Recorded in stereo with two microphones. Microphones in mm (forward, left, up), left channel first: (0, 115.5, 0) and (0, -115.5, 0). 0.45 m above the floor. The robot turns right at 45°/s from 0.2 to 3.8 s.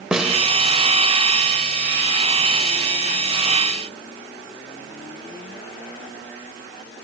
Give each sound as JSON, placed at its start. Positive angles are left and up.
{"t": 0.1, "sound": "a snare drum", "side_deg": -5, "distance_m": 2.5}